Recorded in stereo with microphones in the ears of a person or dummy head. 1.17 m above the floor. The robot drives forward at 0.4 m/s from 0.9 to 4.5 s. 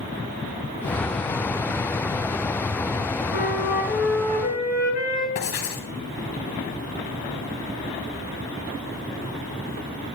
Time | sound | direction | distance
3.3 | a flute | 65° left (ahead or behind) | 6.5 m
5.3 | writing | 55° left (ahead or behind) | 2 m